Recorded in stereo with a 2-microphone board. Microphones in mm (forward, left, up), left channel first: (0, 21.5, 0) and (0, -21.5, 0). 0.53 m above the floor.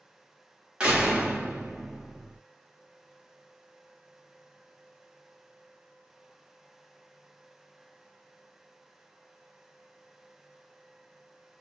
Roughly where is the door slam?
Right.